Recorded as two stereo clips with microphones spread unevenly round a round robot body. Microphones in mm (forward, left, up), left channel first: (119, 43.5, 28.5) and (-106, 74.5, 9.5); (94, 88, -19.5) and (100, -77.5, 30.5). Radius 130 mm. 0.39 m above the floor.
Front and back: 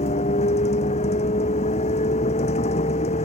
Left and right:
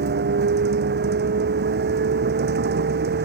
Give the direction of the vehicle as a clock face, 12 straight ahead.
3 o'clock.